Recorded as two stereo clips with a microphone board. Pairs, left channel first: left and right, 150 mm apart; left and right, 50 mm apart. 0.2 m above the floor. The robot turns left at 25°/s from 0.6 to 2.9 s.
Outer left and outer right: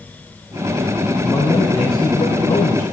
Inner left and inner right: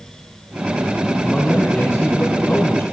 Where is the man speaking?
150° left, 4.5 m; by 2.8 s 110° left, 4.5 m.